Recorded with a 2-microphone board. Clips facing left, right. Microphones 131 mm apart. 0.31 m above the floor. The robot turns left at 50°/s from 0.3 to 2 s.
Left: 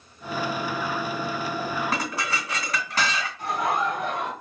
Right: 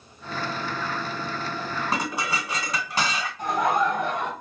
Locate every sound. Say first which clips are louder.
1.9 s dishes clattering: right 1 dB; 25° right (ahead or behind), 1.6 m; by 3.3 s 20° right (ahead or behind), 1.6 m
3.4 s laughter: right 3 dB; 45° right (ahead or behind), 1.6 m